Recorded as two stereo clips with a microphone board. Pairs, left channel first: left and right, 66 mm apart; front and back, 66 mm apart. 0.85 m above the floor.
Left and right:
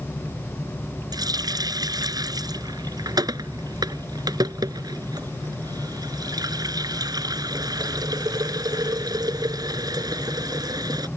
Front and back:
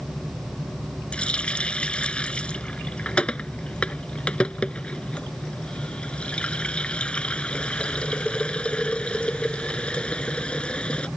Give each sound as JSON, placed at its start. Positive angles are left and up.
{"t": 1.1, "sound": "a running tap", "azimuth_deg": -75}